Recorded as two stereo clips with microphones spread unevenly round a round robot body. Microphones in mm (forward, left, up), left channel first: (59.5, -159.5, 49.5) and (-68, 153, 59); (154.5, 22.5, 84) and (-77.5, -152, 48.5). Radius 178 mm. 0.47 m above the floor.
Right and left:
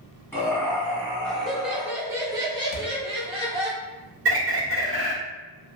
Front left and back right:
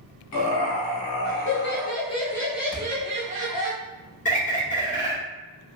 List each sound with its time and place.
0.3 s laughter: 15° left, 1.5 m; by 3.7 s 175° right, 1.3 m
2.7 s a thud: 45° right, 0.7 m
4.2 s a bird: 95° left, 1.5 m